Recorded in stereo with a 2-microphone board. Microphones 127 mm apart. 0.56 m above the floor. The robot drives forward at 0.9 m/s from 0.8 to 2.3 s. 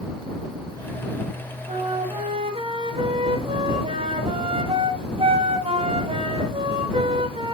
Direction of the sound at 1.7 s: 60° right (ahead or behind).